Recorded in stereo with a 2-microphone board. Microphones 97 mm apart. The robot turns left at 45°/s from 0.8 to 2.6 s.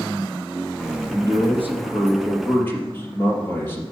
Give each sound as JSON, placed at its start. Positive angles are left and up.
{"t": 1.1, "sound": "a man speaking", "azimuth_deg": -135, "distance_m": 3.5}